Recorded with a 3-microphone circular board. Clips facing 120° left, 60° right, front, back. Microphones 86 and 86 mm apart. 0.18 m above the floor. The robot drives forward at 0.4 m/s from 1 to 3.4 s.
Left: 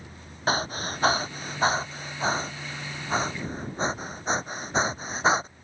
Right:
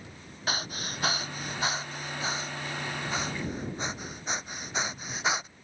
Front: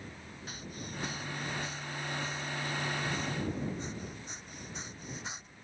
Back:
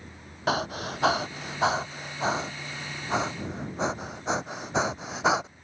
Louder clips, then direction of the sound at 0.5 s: Left 8 dB, back 18 dB; 175° left.